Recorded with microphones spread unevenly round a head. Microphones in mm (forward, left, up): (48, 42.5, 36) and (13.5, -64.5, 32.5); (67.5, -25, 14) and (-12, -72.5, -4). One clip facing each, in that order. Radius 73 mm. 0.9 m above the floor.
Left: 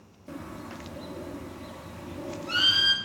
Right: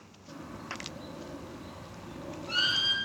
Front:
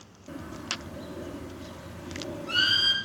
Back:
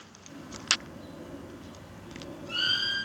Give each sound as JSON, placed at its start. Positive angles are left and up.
{"t": 0.3, "sound": "a bird", "azimuth_deg": 40, "distance_m": 0.8}